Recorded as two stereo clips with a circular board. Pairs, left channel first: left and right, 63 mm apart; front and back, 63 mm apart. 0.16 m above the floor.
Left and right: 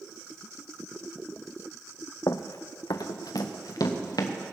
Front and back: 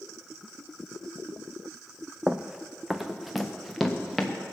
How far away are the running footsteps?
About 0.5 m.